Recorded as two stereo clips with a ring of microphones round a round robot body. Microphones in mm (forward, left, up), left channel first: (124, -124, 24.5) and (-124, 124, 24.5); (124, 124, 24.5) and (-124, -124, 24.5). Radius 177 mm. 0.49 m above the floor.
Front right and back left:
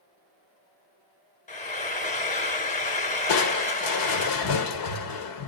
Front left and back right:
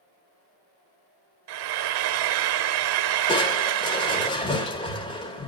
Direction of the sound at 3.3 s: 30° right.